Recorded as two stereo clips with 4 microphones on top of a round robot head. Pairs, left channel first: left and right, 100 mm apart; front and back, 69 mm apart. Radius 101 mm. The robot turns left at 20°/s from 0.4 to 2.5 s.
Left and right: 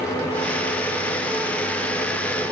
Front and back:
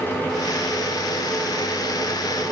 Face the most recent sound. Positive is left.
No sound to turn to.